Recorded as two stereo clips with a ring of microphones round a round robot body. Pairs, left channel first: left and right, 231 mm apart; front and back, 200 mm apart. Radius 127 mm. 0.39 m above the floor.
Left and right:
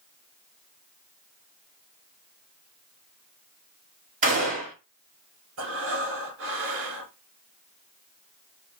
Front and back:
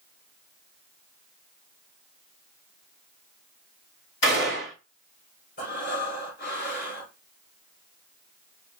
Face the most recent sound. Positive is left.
turn(degrees=-55)